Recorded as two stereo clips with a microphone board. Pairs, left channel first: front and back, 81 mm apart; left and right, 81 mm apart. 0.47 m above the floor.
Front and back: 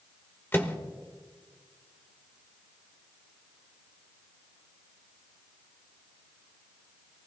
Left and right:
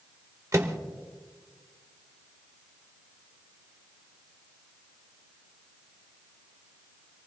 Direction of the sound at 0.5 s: 55° right.